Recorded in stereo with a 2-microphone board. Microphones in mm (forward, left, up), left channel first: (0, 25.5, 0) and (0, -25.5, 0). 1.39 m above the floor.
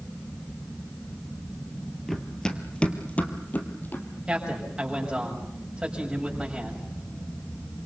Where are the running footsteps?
10° left (ahead or behind), 1.9 m; by 4.1 s 40° left (ahead or behind), 3 m.